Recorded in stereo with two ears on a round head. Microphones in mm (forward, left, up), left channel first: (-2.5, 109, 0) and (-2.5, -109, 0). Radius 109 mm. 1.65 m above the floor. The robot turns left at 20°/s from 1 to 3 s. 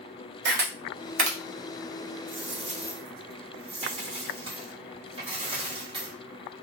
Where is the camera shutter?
45° right (ahead or behind), 0.7 m; by 1.4 s 50° right (ahead or behind), 0.7 m.